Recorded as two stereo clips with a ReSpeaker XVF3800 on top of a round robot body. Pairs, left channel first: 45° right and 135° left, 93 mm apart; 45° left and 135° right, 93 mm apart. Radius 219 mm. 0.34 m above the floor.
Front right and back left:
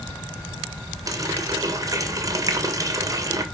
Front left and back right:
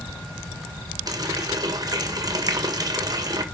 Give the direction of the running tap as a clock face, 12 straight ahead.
6 o'clock.